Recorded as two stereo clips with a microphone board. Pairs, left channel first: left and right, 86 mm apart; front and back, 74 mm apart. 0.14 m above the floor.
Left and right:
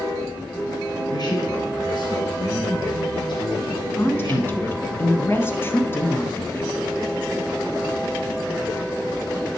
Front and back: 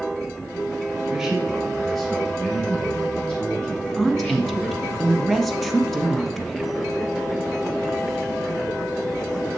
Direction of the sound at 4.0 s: 80° left.